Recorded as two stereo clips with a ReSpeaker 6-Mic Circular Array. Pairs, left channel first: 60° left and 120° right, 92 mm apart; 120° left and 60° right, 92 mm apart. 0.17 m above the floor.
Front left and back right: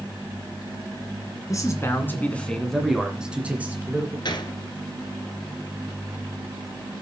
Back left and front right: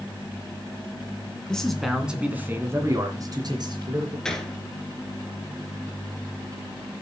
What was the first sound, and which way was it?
A man speaking, 40° left.